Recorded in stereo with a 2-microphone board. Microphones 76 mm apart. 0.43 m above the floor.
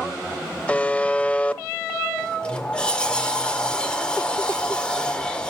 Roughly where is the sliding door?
Centre.